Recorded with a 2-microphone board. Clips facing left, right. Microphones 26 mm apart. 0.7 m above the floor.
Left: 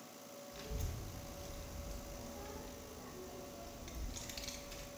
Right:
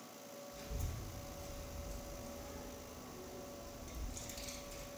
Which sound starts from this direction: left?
A child speaking, at 0.5 s.